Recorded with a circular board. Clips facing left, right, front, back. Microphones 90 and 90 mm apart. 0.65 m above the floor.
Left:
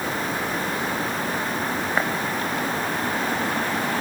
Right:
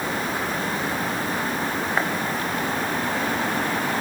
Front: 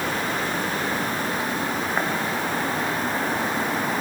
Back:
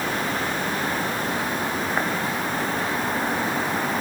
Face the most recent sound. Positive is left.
No sound to turn to.